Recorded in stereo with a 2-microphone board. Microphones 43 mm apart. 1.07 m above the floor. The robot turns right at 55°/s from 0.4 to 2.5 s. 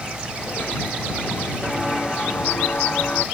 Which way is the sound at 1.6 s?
5° right (ahead or behind).